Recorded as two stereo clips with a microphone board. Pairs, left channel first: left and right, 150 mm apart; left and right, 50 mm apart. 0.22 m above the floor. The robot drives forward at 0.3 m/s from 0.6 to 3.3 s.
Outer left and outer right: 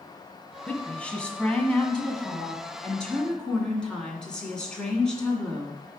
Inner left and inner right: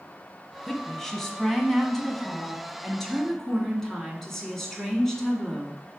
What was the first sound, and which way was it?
A woman speaking, 10° left (ahead or behind).